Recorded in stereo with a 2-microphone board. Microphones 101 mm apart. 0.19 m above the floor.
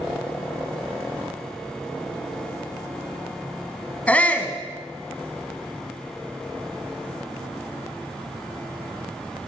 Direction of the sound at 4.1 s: 15° left (ahead or behind).